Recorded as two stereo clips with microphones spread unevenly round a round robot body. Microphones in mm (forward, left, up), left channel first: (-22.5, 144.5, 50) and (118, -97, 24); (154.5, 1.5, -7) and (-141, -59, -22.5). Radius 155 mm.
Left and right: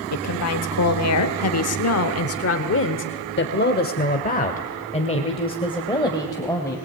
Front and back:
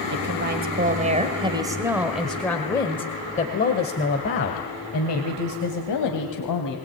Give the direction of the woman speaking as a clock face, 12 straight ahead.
7 o'clock.